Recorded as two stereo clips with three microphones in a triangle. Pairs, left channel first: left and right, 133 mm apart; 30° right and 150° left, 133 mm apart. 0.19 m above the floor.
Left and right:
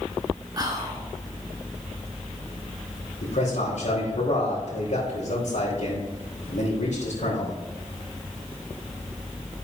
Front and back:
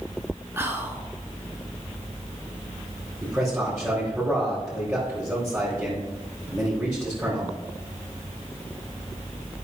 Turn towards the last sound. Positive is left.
turn(degrees=70)